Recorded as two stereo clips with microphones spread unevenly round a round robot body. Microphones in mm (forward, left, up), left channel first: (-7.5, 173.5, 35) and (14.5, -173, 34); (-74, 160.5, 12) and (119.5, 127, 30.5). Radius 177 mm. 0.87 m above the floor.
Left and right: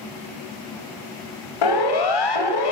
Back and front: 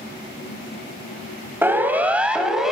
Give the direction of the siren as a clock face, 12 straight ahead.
10 o'clock.